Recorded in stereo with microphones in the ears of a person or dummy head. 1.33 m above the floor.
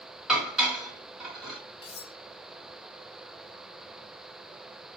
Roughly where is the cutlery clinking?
Left.